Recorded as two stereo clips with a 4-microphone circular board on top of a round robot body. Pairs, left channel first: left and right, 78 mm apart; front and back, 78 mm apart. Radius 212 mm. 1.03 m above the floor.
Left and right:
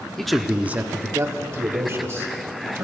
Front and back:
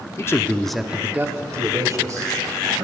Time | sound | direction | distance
0.2 | a man speaking | 10° left | 0.9 m